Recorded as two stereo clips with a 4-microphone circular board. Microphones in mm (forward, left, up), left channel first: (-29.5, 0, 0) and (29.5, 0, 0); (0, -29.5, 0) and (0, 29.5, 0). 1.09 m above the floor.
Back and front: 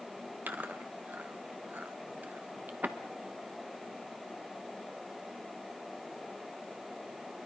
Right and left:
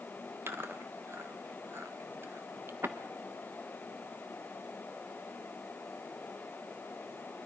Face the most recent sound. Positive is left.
turn(degrees=50)